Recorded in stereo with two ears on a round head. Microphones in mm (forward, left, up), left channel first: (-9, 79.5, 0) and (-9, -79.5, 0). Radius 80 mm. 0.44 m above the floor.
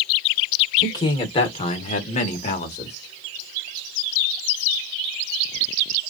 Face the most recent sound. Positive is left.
turn(degrees=35)  # may be behind; listen again after turning